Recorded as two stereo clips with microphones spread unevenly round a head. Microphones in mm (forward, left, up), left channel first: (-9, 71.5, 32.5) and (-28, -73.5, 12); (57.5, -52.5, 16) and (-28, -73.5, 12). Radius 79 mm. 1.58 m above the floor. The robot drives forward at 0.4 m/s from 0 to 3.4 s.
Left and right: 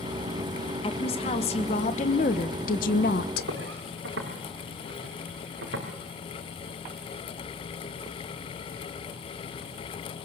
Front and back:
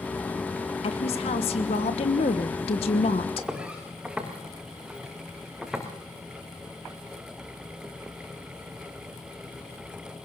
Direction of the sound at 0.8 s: 25° left.